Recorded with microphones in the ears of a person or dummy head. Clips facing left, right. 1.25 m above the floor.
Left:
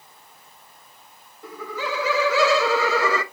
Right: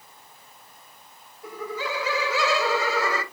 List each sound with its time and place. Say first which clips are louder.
1.4 s laughter: left 1 dB; 55° left (ahead or behind), 1.6 m; by 3.2 s 65° left (ahead or behind), 0.6 m